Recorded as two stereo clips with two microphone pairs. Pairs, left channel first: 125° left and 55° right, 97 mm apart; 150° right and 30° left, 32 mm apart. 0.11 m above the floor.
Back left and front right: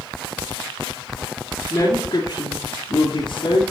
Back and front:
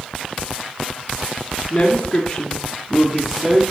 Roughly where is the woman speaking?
Behind.